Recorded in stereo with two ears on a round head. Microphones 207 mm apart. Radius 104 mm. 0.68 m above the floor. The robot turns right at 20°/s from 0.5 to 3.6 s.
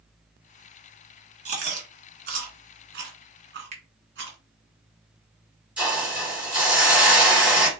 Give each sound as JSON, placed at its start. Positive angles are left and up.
{"t": 1.4, "sound": "chewing", "side_deg": -35, "distance_m": 1.6}
{"t": 3.7, "sound": "a finger snap", "side_deg": -30, "distance_m": 1.5}
{"t": 5.8, "sound": "a hiss", "side_deg": -5, "distance_m": 2.5}